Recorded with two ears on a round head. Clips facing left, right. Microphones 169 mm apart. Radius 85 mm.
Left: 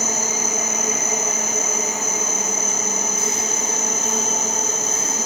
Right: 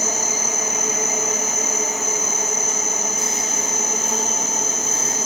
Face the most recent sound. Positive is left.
turn(degrees=55)  # may be behind; listen again after turning